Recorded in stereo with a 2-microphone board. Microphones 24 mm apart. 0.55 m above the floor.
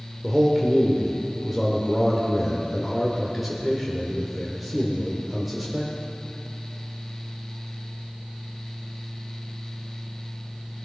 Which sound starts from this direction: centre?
A man speaking, at 0.2 s.